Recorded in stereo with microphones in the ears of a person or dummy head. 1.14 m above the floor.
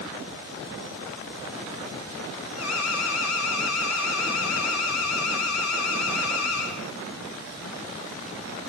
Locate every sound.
2.6 s an alarm: 80° left, 4.5 m